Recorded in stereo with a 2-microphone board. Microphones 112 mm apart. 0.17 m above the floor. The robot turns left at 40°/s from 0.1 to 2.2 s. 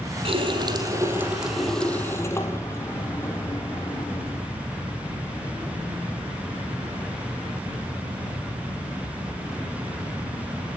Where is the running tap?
125° right, 4 m; by 4.5 s 160° left, 4 m.